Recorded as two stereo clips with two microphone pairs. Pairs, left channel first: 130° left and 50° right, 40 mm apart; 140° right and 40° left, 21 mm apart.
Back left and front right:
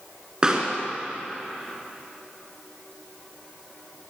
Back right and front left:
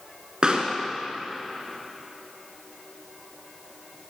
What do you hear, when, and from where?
0.4 s a pop: 10° left, 2.5 m